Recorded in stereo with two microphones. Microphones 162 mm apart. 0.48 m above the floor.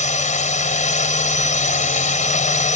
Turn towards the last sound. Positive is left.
turn(degrees=50)  # may be behind; listen again after turning